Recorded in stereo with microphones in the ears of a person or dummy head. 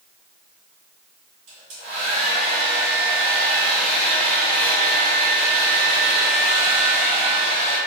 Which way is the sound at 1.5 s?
40° right (ahead or behind).